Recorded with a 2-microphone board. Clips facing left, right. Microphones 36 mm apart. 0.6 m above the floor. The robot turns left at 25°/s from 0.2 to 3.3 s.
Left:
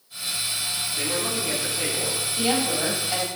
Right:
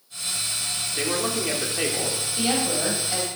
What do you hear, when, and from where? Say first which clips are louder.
0.9 s a man speaking: right 3 dB; 55° right, 1.9 m; by 2.2 s 85° right, 1.9 m
2.4 s a woman speaking: left 1 dB; 10° right (ahead or behind), 2.5 m; by 3.3 s 10° left (ahead or behind), 2.5 m